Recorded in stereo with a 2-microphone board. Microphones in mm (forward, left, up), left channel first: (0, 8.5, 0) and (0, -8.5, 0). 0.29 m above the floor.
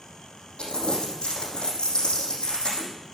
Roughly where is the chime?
No chime in this recording.